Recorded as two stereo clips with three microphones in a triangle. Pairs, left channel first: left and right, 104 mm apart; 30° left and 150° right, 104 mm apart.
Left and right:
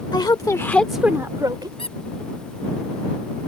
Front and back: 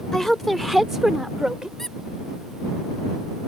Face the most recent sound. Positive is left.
turn(degrees=115)